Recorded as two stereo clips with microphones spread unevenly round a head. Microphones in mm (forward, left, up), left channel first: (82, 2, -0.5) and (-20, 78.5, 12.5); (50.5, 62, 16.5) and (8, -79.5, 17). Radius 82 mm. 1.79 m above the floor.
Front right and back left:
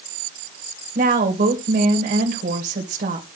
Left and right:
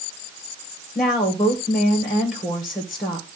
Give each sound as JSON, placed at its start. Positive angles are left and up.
{"t": 0.9, "sound": "a woman speaking", "azimuth_deg": 165, "distance_m": 1.7}